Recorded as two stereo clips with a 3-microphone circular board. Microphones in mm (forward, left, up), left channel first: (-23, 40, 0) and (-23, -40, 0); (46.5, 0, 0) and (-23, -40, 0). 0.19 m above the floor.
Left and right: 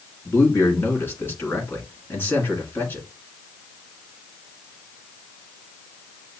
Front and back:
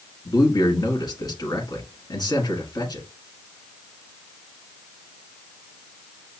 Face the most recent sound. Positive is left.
turn(degrees=35)